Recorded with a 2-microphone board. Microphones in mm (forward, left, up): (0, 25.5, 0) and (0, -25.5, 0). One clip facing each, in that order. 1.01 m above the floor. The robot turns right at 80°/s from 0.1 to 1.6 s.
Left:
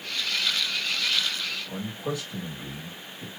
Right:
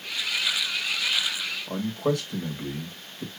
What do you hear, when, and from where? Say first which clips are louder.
1.7 s a man speaking: right 6 dB; 60° right (ahead or behind), 1.6 m